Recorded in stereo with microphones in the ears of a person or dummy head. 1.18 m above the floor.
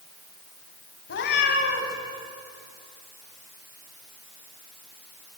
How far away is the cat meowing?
About 3 m.